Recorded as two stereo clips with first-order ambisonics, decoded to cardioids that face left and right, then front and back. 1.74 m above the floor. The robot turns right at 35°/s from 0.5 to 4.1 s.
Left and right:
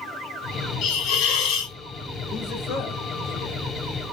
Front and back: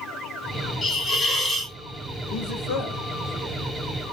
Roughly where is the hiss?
Ahead left.